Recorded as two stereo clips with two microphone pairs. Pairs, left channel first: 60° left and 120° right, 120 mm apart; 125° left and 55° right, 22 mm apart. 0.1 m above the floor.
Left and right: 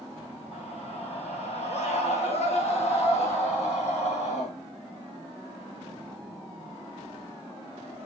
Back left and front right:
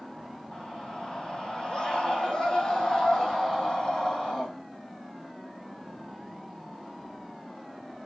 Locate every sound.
0.5 s a scream: 90° left, 5 m; by 4.5 s 80° left, 6.5 m